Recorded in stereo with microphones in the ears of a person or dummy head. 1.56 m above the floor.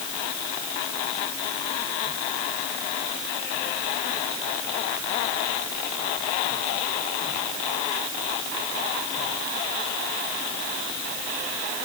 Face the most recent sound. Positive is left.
No sound to turn to.